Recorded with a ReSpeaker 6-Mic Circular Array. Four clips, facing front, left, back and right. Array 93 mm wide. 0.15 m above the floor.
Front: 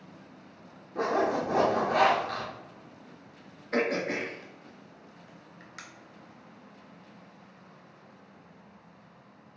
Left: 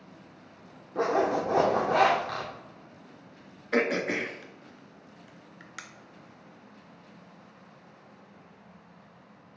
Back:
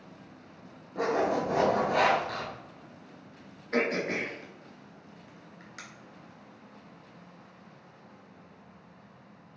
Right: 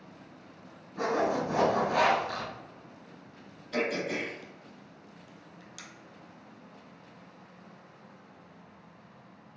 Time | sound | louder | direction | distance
0.9 | a zipper | left 3 dB, even | 90° left | 1.3 m
3.7 | throat clearing | left 4 dB, even | 85° left | 0.6 m